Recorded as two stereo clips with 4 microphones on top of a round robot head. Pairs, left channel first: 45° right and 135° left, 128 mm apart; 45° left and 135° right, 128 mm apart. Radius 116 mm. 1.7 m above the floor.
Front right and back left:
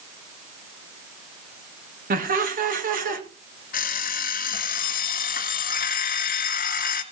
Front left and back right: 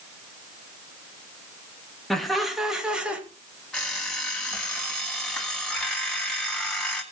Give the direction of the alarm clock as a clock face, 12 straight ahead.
1 o'clock.